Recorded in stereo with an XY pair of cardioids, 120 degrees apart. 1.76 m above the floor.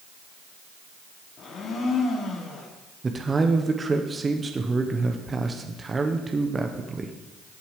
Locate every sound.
1.4 s a blender: 55° left, 2.5 m
3.0 s a man speaking: 25° right, 1.1 m